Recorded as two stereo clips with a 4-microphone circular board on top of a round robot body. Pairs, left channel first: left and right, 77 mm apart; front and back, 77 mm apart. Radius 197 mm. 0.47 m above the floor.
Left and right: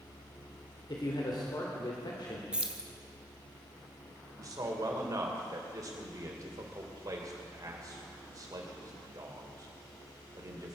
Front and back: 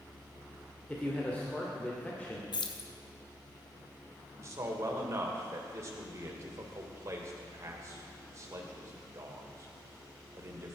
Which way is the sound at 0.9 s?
70° left.